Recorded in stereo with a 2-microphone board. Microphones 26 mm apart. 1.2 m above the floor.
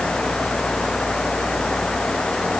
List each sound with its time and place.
Only background noise.